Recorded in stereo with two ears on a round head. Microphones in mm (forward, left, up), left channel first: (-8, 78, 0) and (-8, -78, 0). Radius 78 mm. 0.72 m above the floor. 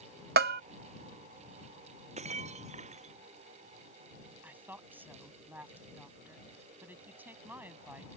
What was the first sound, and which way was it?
A bell, 60° right (ahead or behind).